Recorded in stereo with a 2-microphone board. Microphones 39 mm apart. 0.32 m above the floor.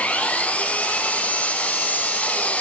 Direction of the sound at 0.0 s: 35° left (ahead or behind).